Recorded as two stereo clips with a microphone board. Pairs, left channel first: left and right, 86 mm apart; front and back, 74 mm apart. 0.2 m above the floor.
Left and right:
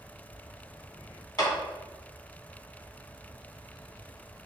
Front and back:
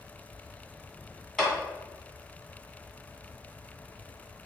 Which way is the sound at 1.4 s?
85° left.